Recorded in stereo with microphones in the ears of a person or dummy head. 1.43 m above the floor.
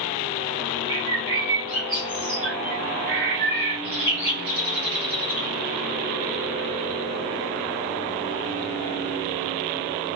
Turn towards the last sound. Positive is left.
turn(degrees=-45)  # may be behind; listen again after turning